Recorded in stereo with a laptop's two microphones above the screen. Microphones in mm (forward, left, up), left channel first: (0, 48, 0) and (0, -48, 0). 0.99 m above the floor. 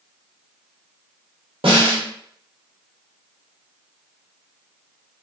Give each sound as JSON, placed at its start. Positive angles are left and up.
{"t": 1.6, "sound": "a snare drum", "side_deg": -75, "distance_m": 1.5}